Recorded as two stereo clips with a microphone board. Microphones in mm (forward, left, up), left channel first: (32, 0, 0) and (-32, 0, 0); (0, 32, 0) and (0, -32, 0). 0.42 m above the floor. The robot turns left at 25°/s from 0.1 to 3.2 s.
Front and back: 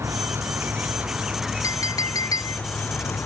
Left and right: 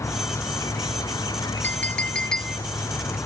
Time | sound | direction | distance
0.0 | an insect | 130° left | ?
1.6 | a clink | 30° left | ?